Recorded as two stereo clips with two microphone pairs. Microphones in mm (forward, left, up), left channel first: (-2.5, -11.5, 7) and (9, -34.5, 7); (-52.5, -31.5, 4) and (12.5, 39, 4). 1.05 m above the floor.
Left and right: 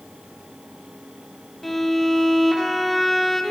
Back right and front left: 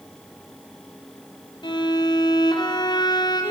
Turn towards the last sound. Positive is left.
turn(degrees=-165)